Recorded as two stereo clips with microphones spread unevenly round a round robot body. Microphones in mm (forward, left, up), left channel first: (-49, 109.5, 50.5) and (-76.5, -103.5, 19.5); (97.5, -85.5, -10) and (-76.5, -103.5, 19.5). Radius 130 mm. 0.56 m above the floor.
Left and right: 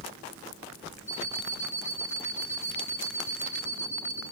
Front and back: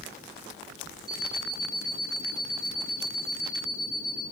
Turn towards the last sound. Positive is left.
turn(degrees=115)